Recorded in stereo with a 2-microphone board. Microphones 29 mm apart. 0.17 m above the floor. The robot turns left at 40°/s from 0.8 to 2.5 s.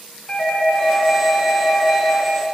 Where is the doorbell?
120° left, 1.8 m; by 2.3 s 60° left, 1.8 m.